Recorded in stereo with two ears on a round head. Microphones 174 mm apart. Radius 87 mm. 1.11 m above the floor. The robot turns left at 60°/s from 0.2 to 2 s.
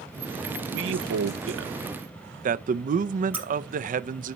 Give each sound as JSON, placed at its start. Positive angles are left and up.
{"t": 0.7, "sound": "a man speaking", "azimuth_deg": -55, "distance_m": 0.6}
{"t": 3.3, "sound": "breaking glass", "side_deg": -10, "distance_m": 4.0}